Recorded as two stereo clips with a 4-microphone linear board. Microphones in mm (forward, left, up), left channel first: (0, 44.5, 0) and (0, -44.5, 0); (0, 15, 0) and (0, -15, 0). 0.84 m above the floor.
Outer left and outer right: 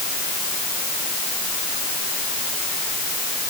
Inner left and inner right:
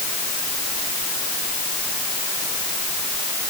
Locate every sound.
Only background noise.